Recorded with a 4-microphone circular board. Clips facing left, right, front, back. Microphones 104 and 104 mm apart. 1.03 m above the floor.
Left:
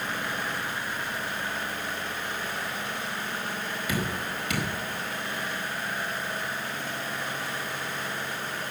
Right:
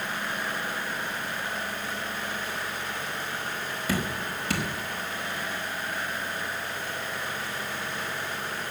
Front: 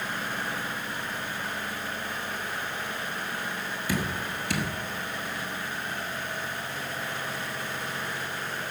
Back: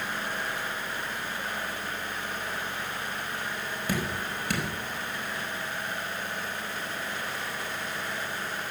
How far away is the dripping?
About 4.5 m.